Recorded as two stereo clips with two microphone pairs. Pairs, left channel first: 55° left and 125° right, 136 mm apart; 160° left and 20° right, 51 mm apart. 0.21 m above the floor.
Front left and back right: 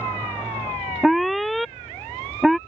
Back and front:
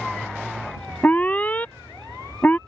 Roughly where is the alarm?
Behind left.